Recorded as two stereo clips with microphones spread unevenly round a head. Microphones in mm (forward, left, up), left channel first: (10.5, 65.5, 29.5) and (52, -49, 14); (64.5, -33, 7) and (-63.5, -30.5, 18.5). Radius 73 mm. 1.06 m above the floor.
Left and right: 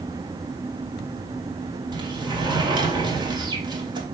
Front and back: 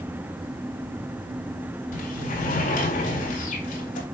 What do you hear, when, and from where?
1.9 s a sliding door: 20° right, 3 m